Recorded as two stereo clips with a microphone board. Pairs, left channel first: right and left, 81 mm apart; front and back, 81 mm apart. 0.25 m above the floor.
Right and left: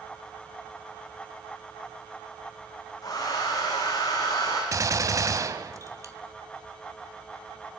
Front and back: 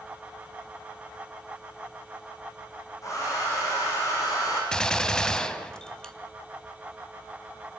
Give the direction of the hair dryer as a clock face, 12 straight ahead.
2 o'clock.